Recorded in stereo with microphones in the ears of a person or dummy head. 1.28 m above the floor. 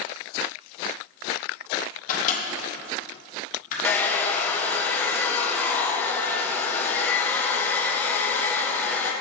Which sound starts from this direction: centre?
A hair dryer, at 3.8 s.